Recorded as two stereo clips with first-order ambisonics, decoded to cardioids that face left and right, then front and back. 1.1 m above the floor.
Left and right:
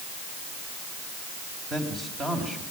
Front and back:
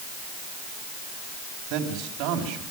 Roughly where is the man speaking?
Behind.